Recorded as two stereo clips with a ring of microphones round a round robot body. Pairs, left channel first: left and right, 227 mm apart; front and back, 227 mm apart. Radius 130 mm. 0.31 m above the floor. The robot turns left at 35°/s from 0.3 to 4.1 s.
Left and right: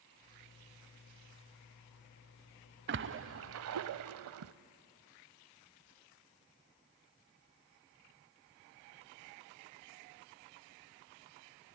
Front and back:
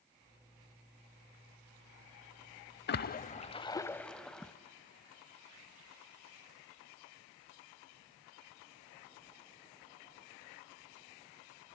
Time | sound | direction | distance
2.9 | a splash | 45° right | 0.6 m